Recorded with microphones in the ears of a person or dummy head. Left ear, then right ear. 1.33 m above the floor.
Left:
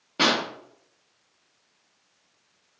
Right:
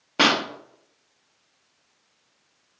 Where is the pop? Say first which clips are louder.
Right 3 dB; 35° right (ahead or behind), 1.0 m.